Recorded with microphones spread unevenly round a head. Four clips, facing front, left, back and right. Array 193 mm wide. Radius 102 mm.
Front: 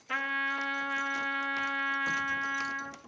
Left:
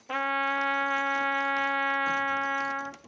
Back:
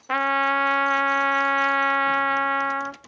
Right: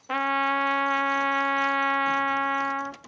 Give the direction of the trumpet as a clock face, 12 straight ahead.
5 o'clock.